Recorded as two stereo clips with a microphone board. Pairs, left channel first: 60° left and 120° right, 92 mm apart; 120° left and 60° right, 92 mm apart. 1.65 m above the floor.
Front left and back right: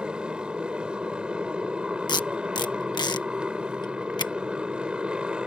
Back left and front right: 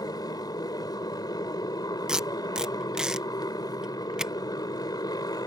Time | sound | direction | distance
0.0 | a motorcycle | 160° left | ?
2.1 | tape being pulled | 20° left | ?